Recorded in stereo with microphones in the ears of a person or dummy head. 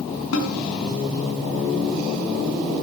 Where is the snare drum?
80° left, 5.5 m.